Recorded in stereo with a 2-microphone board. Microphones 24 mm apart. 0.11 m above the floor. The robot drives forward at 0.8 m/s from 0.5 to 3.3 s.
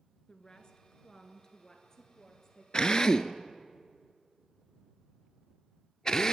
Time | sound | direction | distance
0.3 | a woman speaking | 25° left (ahead or behind) | 1.7 m
2.7 | a drill | 30° left (ahead or behind) | 0.7 m